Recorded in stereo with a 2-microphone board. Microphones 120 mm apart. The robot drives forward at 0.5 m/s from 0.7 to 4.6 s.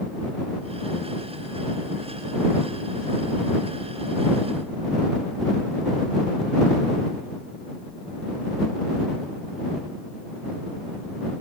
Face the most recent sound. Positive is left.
No sound to turn to.